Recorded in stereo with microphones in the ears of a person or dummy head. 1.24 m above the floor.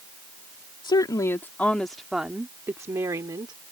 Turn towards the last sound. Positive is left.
turn(degrees=-25)  # may be behind; listen again after turning